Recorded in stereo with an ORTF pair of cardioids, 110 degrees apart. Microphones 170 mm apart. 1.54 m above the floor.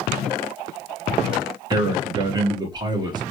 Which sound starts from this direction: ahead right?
A man speaking, at 1.7 s.